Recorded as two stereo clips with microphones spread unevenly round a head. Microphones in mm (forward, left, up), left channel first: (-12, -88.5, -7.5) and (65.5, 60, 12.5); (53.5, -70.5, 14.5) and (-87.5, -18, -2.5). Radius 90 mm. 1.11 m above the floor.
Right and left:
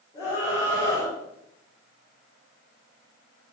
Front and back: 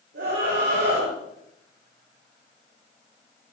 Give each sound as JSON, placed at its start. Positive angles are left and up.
{"t": 0.1, "sound": "a scream", "azimuth_deg": 170, "distance_m": 6.5}